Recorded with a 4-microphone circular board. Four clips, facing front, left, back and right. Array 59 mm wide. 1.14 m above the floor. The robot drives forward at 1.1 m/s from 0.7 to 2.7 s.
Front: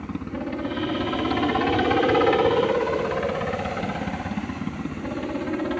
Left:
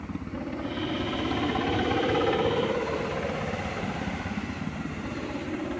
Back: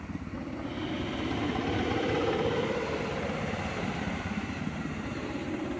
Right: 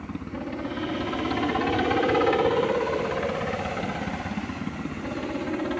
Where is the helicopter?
15° right; by 5.8 s 30° right.